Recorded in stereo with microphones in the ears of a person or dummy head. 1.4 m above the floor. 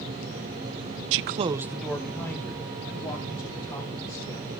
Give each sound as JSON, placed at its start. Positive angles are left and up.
{"t": 1.1, "sound": "a man speaking", "side_deg": -70, "distance_m": 0.5}